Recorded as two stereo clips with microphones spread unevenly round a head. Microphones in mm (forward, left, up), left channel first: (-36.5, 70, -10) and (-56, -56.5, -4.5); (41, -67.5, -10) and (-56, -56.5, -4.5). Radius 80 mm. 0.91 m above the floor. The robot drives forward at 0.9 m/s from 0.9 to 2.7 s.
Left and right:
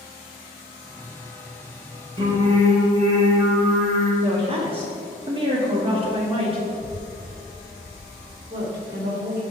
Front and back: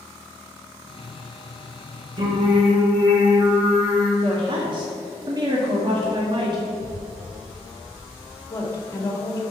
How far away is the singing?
About 2.5 m.